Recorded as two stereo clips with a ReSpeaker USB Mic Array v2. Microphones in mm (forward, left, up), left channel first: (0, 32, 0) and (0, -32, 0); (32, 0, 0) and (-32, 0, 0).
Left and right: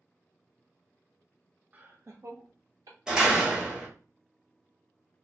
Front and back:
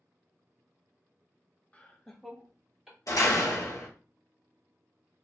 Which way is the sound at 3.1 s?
15° right.